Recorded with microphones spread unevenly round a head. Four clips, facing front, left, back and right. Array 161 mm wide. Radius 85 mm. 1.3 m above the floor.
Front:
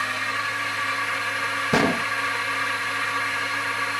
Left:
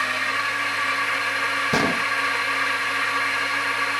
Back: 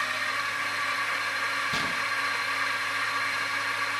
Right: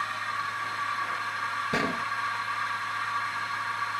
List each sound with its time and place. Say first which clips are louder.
0.0 s a drone: left 6 dB, front 3 dB; 70° left
1.7 s a gunshot: left 7 dB, front 9 dB; 25° left